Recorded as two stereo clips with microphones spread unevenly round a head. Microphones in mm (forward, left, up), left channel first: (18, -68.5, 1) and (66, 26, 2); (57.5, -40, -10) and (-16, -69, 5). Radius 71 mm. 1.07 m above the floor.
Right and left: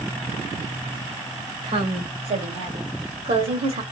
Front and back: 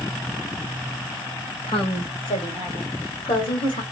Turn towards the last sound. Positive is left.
turn(degrees=50)